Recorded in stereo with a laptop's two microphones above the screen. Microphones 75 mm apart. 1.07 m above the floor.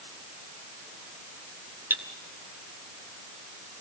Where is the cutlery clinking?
30° right (ahead or behind), 1.9 m.